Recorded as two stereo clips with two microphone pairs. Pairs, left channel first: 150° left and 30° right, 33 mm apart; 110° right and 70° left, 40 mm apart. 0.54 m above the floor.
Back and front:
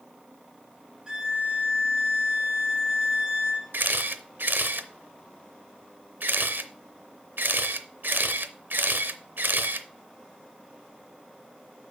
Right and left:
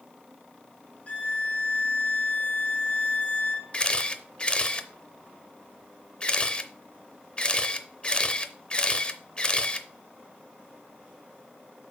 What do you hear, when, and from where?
1.1 s a violin: 90° right, 1.5 m
3.7 s a camera shutter: 45° right, 0.6 m